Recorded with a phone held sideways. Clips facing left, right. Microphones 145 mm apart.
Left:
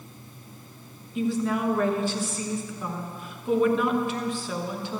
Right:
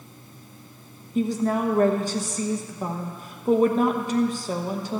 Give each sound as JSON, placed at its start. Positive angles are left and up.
{"t": 1.1, "sound": "a woman speaking", "side_deg": -40, "distance_m": 1.0}